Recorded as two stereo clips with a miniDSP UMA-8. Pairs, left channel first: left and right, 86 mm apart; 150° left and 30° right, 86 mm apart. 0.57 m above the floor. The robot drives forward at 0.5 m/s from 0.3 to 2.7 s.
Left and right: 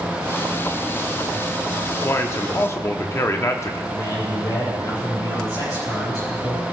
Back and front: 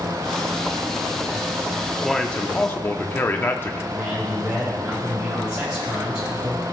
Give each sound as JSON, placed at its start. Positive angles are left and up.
{"t": 2.0, "sound": "a man speaking", "azimuth_deg": 65, "distance_m": 0.7}
{"t": 3.9, "sound": "a man speaking", "azimuth_deg": 50, "distance_m": 4.0}